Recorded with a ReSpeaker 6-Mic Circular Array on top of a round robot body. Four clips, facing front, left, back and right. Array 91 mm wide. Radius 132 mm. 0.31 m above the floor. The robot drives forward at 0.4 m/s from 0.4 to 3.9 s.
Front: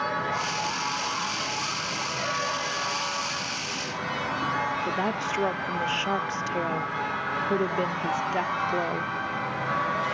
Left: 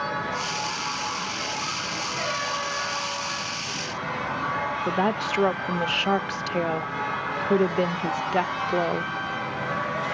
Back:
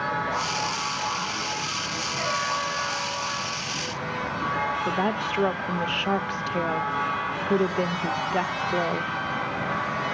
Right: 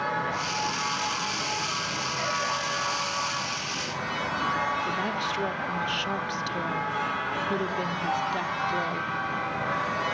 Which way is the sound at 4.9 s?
95° left.